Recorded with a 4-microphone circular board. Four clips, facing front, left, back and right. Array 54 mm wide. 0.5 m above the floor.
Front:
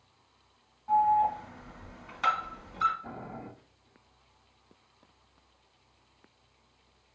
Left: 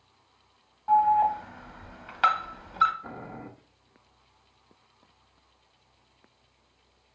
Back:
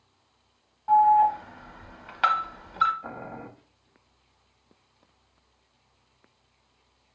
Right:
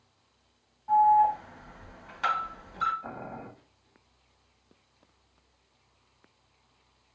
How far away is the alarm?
About 0.8 m.